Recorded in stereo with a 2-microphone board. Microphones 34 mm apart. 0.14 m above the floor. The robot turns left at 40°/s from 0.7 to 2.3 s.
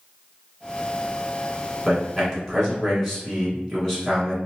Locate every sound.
1.9 s a man speaking: centre (ahead or behind), 1.2 m; by 4.4 s 10° left (ahead or behind), 1.2 m